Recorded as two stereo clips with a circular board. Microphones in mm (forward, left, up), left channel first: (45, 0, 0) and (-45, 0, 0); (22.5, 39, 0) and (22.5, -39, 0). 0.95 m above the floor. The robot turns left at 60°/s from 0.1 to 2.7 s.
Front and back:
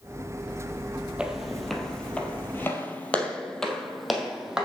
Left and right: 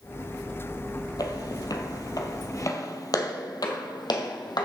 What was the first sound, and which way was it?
Footsteps, 105° left.